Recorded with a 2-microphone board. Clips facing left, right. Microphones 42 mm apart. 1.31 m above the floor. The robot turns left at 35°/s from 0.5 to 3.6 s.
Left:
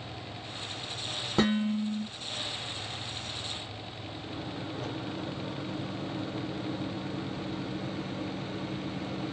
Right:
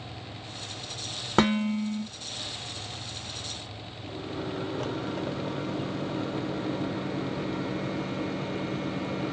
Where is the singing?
I don't hear singing.